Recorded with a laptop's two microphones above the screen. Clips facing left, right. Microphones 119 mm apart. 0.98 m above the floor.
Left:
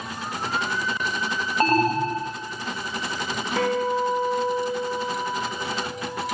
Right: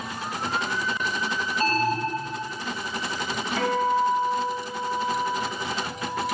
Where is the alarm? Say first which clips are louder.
Left 5 dB; 55° left (ahead or behind), 0.9 m.